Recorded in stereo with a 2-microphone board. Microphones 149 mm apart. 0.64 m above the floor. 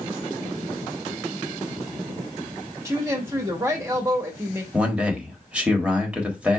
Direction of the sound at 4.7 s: 5° right (ahead or behind).